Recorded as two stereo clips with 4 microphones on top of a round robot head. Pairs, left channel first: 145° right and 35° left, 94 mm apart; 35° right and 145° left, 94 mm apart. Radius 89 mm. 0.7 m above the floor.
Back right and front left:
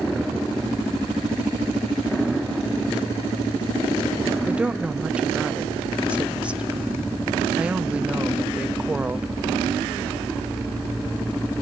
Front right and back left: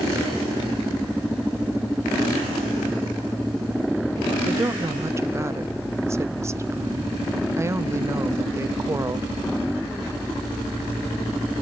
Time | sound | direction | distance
4.5 | a woman speaking | 105° left | 0.5 m